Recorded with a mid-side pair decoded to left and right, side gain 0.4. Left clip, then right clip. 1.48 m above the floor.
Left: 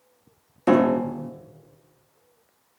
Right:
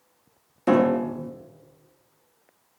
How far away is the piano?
About 0.7 m.